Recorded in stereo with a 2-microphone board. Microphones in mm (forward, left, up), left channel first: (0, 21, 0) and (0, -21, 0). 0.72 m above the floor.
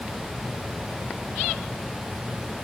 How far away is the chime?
No chime in this recording.